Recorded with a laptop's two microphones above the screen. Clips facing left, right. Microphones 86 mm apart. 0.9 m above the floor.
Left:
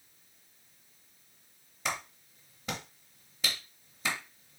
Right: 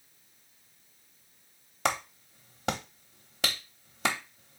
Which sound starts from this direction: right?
A clap, at 1.9 s.